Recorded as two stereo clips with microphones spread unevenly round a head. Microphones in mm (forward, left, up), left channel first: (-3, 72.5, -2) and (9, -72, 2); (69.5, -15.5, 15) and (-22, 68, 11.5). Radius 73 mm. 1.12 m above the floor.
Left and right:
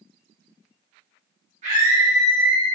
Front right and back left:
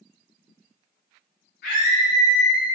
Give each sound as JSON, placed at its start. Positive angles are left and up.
{"t": 1.6, "sound": "a scream", "azimuth_deg": -35, "distance_m": 0.9}